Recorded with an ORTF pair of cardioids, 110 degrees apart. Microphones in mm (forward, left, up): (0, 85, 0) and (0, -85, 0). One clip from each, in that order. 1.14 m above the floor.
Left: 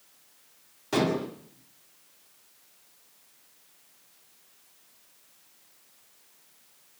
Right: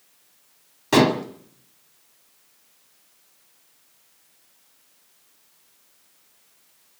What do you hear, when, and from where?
0.9 s dishes clattering: 50° right, 1.9 m